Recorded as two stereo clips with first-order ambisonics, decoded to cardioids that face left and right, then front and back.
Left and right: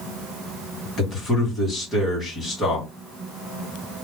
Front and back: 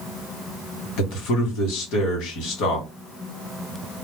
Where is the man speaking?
20° left, 1.7 m.